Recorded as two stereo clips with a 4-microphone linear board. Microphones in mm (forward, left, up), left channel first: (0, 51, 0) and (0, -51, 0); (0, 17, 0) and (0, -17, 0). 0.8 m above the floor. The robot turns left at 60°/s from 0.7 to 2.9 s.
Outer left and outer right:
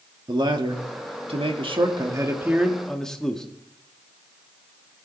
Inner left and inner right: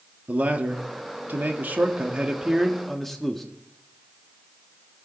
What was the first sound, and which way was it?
A man speaking, 55° right.